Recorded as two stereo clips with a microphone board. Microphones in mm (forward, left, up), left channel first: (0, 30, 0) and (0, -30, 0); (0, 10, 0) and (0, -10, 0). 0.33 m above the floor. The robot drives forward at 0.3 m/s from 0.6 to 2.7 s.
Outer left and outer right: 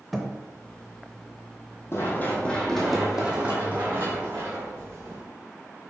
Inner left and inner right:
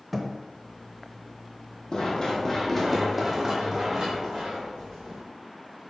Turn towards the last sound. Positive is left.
turn(degrees=-50)  # may be behind; listen again after turning